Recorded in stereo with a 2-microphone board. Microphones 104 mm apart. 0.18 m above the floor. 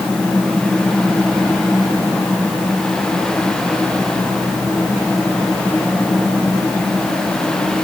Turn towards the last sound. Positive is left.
No sound to turn to.